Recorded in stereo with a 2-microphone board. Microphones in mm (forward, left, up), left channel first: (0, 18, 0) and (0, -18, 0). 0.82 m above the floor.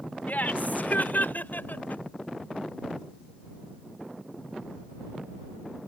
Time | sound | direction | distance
0.3 | laughter | 55° left (ahead or behind) | ?